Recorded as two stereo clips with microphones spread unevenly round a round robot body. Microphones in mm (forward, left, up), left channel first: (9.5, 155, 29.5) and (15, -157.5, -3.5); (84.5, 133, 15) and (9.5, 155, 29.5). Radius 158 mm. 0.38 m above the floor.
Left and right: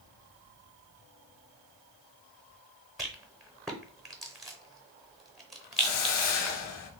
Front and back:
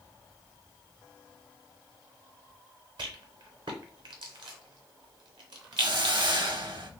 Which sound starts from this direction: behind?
A rattle, at 3.0 s.